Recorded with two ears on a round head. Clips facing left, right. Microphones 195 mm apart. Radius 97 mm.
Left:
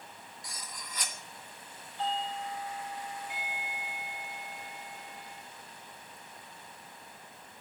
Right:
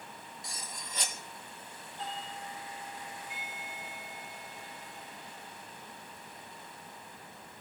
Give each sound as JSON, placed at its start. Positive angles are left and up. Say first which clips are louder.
{"t": 0.4, "sound": "cutlery clinking", "louder": "even", "side_deg": -25, "distance_m": 1.4}
{"t": 2.0, "sound": "a doorbell", "louder": "left 8 dB", "side_deg": 60, "distance_m": 8.5}